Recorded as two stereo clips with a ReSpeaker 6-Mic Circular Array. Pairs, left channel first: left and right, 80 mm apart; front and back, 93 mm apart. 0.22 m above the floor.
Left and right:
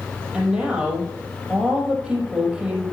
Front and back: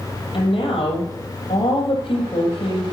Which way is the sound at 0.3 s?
10° right.